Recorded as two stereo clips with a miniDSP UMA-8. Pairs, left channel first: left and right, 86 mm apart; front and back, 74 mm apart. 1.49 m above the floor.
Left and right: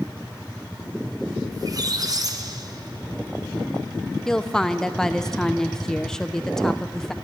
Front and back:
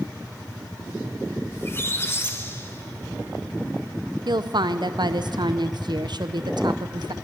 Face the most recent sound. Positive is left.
turn(degrees=175)